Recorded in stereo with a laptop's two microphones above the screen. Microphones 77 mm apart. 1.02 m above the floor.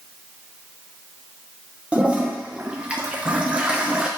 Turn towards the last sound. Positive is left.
turn(degrees=-15)  # may be behind; listen again after turning